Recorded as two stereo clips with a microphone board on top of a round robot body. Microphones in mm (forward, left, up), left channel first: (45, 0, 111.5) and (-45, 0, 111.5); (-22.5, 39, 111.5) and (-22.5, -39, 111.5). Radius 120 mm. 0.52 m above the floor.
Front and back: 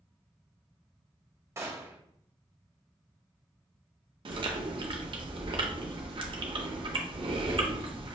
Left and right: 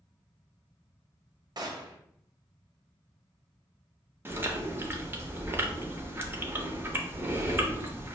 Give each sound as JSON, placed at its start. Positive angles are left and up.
{"t": 1.6, "sound": "a gunshot", "azimuth_deg": -120, "distance_m": 0.9}
{"t": 4.2, "sound": "chewing", "azimuth_deg": -150, "distance_m": 0.7}